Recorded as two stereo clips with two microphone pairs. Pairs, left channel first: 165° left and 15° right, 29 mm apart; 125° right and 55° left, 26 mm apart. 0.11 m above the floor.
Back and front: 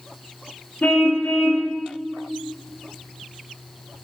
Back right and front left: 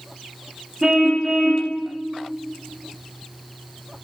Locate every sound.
0.8 s a car horn: 130° left, 4 m